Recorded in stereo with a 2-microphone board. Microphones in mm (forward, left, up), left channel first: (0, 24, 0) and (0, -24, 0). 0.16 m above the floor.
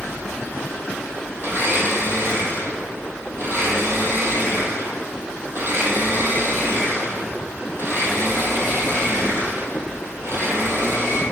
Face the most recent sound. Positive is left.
turn(degrees=-55)  # may be behind; listen again after turning